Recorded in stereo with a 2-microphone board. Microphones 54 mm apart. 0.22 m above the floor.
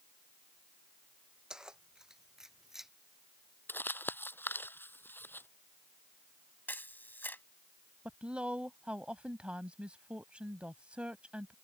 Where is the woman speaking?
20° right (ahead or behind).